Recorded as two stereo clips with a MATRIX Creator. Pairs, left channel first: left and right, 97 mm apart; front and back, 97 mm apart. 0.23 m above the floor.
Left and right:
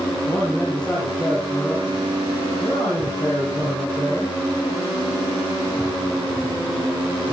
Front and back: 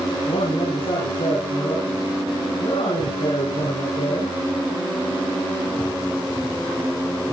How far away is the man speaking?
About 6 m.